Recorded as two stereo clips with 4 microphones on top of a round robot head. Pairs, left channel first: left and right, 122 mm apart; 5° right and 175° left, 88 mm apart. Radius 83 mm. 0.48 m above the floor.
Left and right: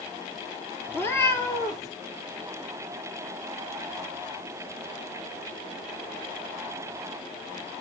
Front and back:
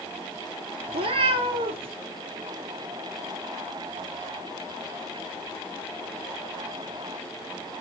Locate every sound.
0.9 s a cat meowing: 160° left, 1.5 m